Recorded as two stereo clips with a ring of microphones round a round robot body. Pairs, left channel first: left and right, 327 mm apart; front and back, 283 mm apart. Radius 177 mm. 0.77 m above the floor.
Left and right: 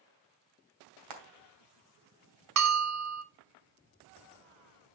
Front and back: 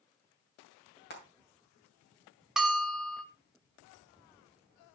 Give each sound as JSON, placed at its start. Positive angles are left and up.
{"t": 1.1, "sound": "frying", "azimuth_deg": -60, "distance_m": 2.5}
{"t": 2.6, "sound": "a bell", "azimuth_deg": -90, "distance_m": 0.9}